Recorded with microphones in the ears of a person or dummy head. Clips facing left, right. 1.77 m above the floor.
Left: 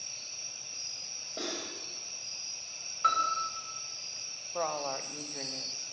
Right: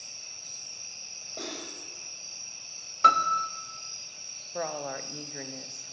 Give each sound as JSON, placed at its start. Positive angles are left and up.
{"t": 1.4, "sound": "cutlery clinking", "side_deg": 15, "distance_m": 5.5}
{"t": 3.0, "sound": "a piano", "side_deg": -55, "distance_m": 0.8}
{"t": 4.5, "sound": "a woman speaking", "side_deg": -10, "distance_m": 0.9}